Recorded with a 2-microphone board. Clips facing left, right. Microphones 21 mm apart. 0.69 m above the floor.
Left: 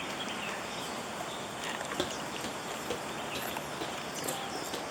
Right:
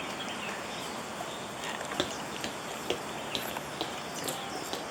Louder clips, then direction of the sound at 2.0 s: Right 1 dB; 20° right (ahead or behind).